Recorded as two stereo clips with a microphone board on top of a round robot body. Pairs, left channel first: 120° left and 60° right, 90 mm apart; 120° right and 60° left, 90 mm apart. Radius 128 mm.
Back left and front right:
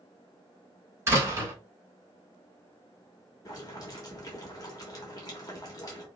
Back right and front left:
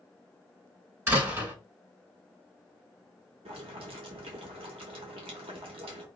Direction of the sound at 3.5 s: 70° left.